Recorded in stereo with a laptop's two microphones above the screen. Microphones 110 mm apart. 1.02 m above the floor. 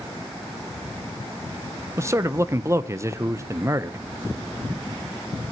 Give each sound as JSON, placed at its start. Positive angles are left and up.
{"t": 2.0, "sound": "a man speaking", "side_deg": -25, "distance_m": 0.6}